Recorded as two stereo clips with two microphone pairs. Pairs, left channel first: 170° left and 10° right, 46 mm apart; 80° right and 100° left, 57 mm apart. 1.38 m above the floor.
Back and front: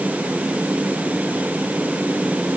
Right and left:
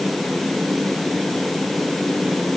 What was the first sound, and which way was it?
Only background noise.